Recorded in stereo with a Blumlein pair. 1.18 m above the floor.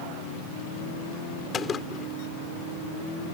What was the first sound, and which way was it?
A gunshot, 20° left.